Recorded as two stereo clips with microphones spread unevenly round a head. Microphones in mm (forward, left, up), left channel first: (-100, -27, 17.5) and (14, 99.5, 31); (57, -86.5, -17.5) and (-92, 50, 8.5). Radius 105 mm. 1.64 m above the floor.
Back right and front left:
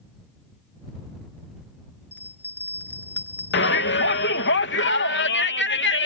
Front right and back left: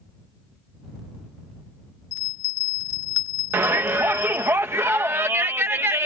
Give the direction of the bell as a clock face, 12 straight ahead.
2 o'clock.